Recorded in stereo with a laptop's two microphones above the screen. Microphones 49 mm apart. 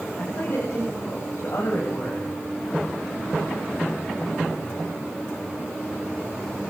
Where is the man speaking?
55° left (ahead or behind), 7 m; by 2.3 s 65° left (ahead or behind), 8 m.